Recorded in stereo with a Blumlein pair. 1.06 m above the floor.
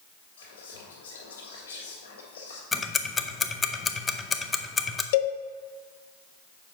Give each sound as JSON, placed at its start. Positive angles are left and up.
{"t": 0.4, "sound": "whispering", "azimuth_deg": 65, "distance_m": 2.0}
{"t": 2.7, "sound": "ticking", "azimuth_deg": 15, "distance_m": 0.5}
{"t": 5.1, "sound": "a cowbell", "azimuth_deg": 50, "distance_m": 0.7}